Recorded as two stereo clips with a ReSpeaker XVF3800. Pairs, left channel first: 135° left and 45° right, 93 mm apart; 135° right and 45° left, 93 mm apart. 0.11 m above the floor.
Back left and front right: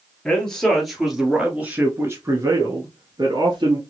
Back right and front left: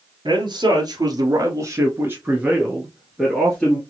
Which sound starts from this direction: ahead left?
A man speaking, at 0.2 s.